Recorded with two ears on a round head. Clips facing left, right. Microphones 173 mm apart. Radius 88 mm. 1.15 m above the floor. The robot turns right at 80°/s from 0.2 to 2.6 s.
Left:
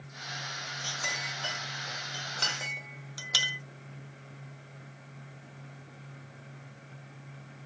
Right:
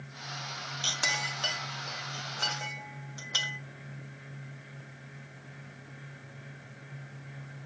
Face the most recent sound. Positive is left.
turn(degrees=40)  # may be behind; listen again after turning